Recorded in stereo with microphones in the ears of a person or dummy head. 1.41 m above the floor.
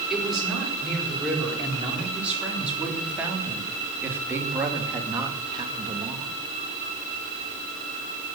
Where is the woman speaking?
5° right (ahead or behind), 5 m; by 6.3 s 30° right (ahead or behind), 2 m.